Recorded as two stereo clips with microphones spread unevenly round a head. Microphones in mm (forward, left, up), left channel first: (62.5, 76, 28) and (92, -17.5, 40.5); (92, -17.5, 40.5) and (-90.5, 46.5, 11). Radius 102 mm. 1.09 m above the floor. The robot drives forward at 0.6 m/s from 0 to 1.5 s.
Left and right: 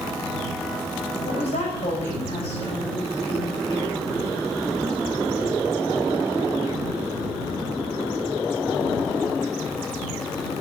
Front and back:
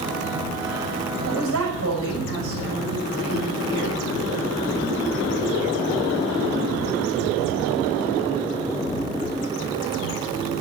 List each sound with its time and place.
1.2 s a woman speaking: 145° left, 6 m